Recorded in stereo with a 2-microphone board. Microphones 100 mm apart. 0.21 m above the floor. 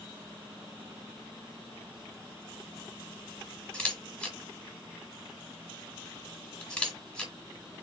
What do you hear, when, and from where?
3.7 s a camera shutter: 10° left (ahead or behind), 2 m